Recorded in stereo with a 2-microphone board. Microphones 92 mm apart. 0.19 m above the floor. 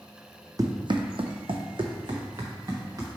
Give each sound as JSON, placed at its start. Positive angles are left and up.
{"t": 0.6, "sound": "running footsteps", "side_deg": -45, "distance_m": 0.6}